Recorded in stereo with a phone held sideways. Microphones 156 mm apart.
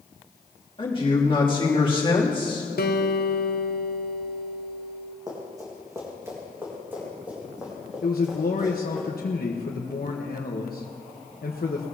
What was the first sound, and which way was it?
A man speaking, 35° left (ahead or behind).